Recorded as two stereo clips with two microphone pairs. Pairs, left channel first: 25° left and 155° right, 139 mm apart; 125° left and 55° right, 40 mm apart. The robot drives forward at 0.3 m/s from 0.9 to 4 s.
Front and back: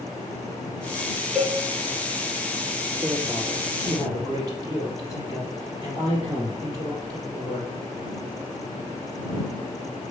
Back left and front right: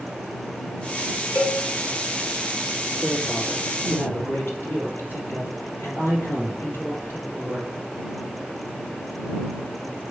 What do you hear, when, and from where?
1.4 s a cowbell: 120° left, 2 m
3.0 s a man speaking: 145° left, 3.5 m